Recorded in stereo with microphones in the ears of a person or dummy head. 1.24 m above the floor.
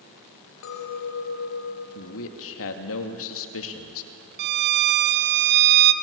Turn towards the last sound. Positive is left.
turn(degrees=-60)  # may be behind; listen again after turning